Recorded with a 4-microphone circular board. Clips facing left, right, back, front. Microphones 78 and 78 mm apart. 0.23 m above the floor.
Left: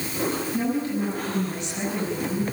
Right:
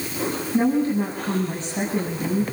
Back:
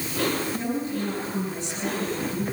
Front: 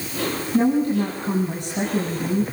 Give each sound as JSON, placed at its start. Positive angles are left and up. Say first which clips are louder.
{"t": 0.5, "sound": "a woman speaking", "louder": "right 9 dB, front 9 dB", "azimuth_deg": -35, "distance_m": 6.5}